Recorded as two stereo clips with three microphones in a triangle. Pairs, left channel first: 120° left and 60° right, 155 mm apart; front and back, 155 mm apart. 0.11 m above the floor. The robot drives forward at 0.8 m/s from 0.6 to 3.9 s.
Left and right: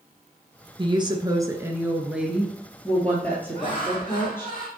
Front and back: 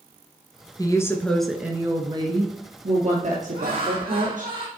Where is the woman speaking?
40° right, 1.2 m; by 4.5 s 165° right, 2.5 m.